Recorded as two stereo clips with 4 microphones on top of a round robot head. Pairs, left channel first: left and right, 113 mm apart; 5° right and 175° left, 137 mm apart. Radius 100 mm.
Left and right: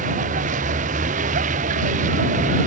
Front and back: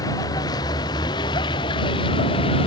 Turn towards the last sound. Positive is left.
turn(degrees=-65)